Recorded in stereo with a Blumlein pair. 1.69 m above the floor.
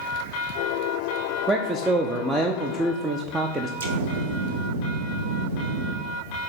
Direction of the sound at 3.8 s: 60° right.